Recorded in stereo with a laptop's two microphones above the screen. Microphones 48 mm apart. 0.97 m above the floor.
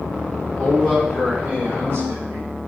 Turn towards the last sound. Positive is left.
turn(degrees=-65)  # may be behind; listen again after turning